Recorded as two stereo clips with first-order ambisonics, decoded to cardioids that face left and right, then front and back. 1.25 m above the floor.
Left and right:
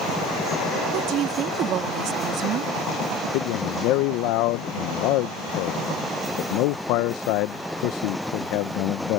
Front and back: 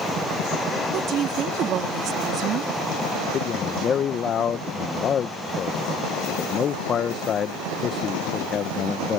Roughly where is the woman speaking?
Behind right.